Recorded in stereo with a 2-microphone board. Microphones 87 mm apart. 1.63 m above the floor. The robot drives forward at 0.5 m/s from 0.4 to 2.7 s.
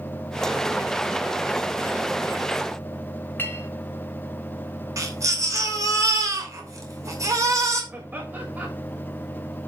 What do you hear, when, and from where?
3.4 s a clink: 25° left (ahead or behind), 1.8 m
5.0 s a baby crying: 40° right (ahead or behind), 3 m
7.9 s laughter: 25° right (ahead or behind), 4 m